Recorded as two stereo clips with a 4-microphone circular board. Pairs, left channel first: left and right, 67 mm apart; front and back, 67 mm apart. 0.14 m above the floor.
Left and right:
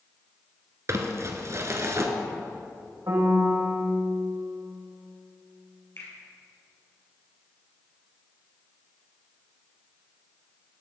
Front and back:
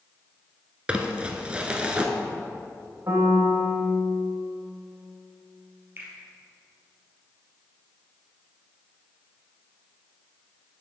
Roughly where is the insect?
No insect in this recording.